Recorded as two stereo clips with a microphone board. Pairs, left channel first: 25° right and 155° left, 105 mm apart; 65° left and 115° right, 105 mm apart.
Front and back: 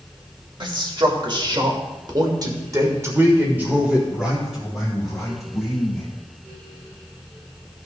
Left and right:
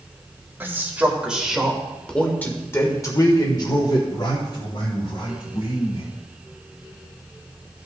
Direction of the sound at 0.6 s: Straight behind.